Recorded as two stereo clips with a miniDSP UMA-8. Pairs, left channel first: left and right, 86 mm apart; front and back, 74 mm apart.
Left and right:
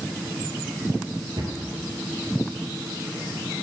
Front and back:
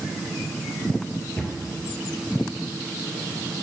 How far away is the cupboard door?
About 1.8 m.